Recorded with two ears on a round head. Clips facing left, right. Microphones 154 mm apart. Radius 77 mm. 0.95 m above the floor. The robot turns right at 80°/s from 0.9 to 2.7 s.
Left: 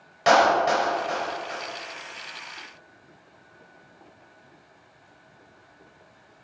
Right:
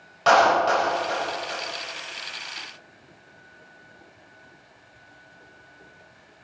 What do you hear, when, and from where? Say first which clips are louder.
0.3 s a clap: even; 15° left (ahead or behind), 4.5 m; by 1.6 s 40° right (ahead or behind), 4.5 m